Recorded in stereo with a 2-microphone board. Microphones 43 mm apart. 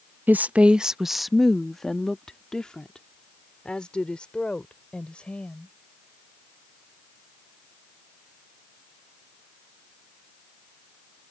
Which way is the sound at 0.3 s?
50° right (ahead or behind).